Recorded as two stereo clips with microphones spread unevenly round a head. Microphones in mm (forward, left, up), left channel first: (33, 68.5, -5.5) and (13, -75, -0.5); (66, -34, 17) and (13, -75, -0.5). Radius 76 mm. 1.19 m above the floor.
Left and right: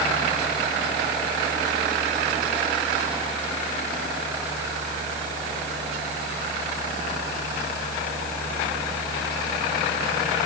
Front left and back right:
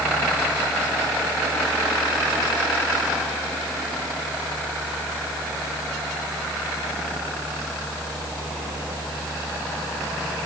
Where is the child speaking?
I don't hear a child speaking.